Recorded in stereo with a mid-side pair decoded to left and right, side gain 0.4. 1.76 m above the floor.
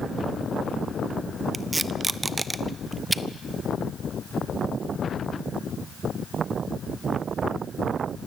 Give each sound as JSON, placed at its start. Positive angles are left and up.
{"t": 1.5, "sound": "tape being pulled", "azimuth_deg": -20, "distance_m": 1.1}